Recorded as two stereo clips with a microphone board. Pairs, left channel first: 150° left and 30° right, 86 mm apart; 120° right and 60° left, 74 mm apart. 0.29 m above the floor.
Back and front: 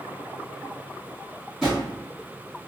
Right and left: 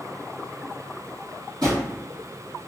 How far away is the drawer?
About 1.8 m.